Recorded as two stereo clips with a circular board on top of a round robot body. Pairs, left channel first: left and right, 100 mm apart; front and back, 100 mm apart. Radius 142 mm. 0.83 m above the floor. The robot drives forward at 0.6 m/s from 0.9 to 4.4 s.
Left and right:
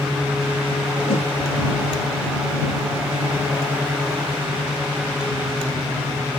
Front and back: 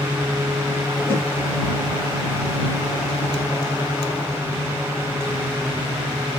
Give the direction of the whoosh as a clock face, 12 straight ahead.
10 o'clock.